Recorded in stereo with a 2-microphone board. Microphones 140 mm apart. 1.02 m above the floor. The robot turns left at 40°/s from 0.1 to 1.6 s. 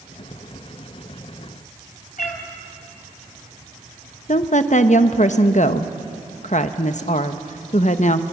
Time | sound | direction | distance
2.2 | a cat meowing | 75° left (ahead or behind) | 2.5 m
4.3 | a woman speaking | 60° left (ahead or behind) | 1.0 m